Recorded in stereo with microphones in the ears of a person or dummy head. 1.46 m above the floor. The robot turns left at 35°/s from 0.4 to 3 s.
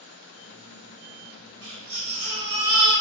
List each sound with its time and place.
1.6 s a baby crying: 105° right, 1.5 m; by 2.9 s 150° right, 1.5 m